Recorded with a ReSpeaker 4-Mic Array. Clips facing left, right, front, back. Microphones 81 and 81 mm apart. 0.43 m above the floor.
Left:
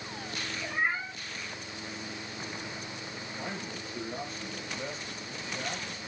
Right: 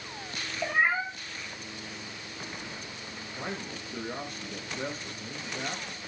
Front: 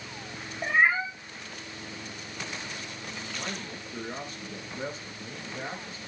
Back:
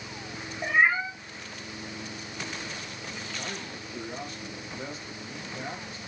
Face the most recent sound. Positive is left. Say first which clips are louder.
# right 2 dB, even
turn(degrees=-45)